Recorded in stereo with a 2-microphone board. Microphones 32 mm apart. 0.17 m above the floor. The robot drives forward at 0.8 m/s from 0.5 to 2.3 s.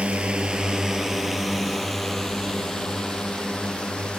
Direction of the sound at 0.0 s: 35° right (ahead or behind).